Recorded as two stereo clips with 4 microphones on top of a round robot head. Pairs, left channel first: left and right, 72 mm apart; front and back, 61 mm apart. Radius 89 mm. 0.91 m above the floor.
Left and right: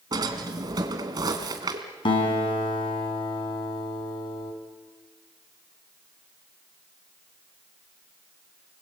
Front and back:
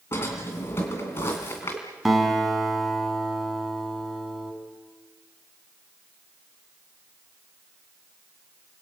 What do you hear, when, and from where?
0.1 s a drawer: 55° right, 2 m
2.0 s a guitar: 95° left, 5 m